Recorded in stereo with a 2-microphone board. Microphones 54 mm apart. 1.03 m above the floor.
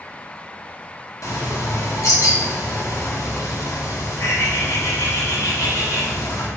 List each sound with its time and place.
1.2 s a bird: 80° left, 1.8 m